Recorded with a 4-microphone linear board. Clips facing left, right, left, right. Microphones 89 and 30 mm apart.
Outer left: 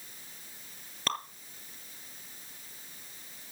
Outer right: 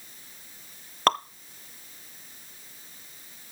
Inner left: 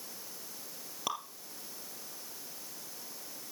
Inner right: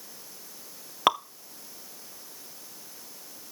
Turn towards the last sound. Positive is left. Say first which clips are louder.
# outer right 12 dB, inner right 14 dB
turn(degrees=-55)  # may be behind; listen again after turning